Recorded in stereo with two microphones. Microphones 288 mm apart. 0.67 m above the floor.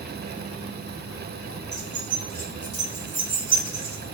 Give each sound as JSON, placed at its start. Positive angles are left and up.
{"t": 1.7, "sound": "keys jangling", "side_deg": 35, "distance_m": 1.6}